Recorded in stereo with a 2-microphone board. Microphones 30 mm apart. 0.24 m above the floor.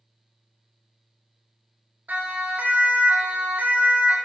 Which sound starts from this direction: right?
A siren, at 2.1 s.